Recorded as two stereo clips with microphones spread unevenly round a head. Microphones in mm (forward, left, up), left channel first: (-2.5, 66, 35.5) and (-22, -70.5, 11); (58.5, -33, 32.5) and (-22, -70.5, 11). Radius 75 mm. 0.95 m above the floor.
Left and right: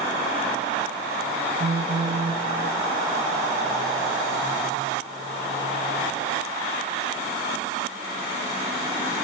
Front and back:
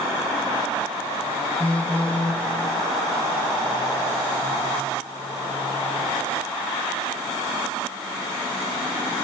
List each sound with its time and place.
1.6 s a phone buzzing: 45° right, 0.6 m